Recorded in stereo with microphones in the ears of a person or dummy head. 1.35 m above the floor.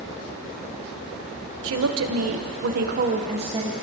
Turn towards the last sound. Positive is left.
turn(degrees=-20)  # may be behind; listen again after turning